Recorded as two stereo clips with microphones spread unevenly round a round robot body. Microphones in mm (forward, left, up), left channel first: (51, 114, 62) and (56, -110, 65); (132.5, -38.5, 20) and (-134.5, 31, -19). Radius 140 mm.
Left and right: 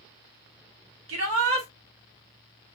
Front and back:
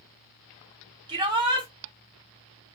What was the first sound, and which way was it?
A shout, 120° right.